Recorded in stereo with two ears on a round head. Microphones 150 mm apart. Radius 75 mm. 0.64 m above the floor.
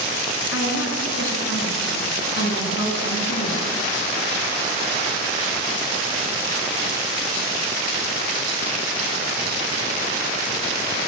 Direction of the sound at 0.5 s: 80° left.